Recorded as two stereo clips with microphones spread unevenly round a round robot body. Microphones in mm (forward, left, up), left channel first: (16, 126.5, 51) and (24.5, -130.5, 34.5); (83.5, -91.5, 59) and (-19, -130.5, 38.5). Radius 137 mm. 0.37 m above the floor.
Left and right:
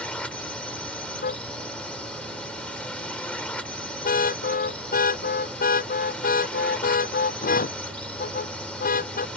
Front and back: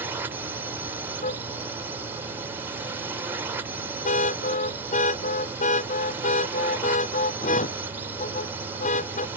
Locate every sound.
0.0 s a drone: straight behind
1.2 s a car horn: 35° left